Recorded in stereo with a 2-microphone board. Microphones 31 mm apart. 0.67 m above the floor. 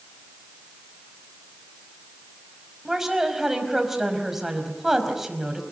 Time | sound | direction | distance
2.9 | a woman speaking | 10° right (ahead or behind) | 4.5 m